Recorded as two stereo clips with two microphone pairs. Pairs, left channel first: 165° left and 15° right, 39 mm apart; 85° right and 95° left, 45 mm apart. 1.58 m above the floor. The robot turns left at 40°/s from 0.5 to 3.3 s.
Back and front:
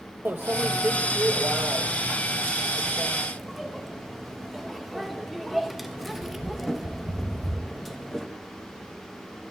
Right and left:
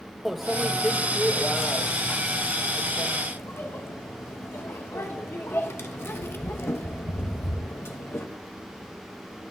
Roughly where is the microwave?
Ahead.